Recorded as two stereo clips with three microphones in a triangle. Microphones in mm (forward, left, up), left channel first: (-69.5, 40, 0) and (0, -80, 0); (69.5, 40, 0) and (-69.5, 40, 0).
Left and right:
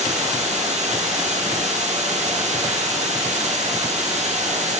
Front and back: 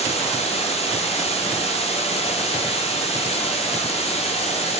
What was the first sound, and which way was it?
Running water, 35° right.